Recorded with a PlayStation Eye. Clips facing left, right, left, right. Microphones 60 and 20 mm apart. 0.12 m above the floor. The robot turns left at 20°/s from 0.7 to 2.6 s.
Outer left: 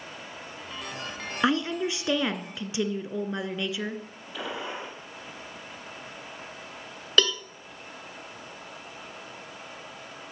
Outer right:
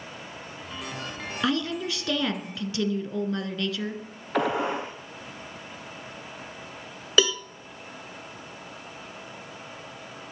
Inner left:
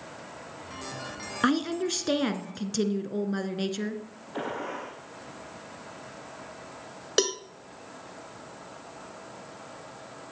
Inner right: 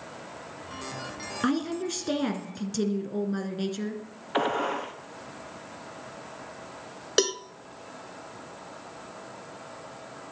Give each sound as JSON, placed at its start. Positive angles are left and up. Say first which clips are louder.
{"t": 1.4, "sound": "a woman speaking", "louder": "outer left 2 dB, inner left 2 dB", "side_deg": 25, "distance_m": 1.1}
{"t": 4.3, "sound": "a gunshot", "louder": "outer right 9 dB, inner right 7 dB", "side_deg": -60, "distance_m": 2.0}
{"t": 7.2, "sound": "a cowbell", "louder": "outer right 1 dB, inner right 1 dB", "side_deg": -5, "distance_m": 0.5}